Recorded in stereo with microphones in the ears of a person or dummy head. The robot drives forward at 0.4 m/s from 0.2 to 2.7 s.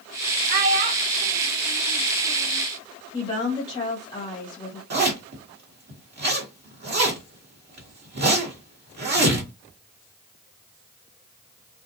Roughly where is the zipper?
Right.